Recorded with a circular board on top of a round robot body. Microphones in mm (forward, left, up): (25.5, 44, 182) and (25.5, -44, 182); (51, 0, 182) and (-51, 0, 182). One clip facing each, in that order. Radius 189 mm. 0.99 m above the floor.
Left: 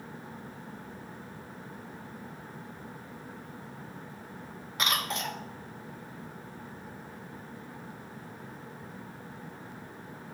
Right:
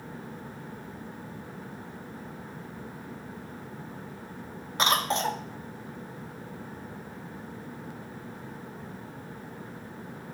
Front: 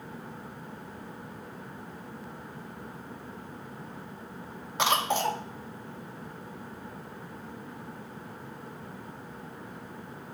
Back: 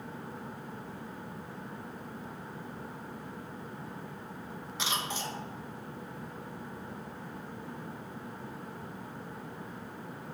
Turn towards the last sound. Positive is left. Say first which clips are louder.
# right 6 dB, front 10 dB
turn(degrees=-30)